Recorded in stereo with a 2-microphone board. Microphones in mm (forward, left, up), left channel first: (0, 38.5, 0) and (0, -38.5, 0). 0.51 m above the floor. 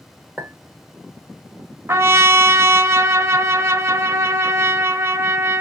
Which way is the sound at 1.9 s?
35° right (ahead or behind).